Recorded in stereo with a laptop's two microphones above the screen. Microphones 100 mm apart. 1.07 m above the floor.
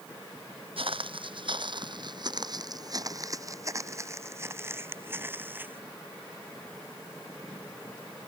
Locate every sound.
0.8 s footsteps: 65° right (ahead or behind); by 5.8 s 20° right (ahead or behind)